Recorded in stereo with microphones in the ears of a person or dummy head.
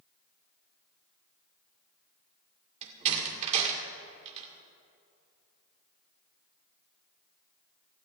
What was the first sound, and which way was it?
A door slam, 35° right (ahead or behind).